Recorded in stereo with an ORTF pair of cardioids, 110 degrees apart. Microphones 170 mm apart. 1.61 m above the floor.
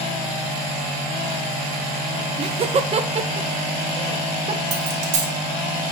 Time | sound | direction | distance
2.4 | laughter | 35° right | 1.2 m
4.7 | a dropped coin | 45° right | 3 m